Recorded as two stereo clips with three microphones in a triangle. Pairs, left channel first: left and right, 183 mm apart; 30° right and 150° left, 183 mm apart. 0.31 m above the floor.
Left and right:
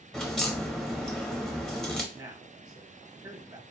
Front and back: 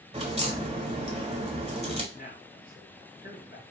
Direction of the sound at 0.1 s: 175° left.